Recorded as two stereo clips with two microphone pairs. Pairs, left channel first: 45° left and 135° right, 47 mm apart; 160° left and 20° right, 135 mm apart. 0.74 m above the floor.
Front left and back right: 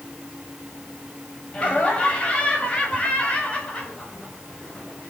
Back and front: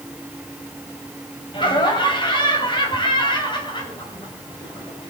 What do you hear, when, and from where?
1.5 s laughter: 105° left, 5 m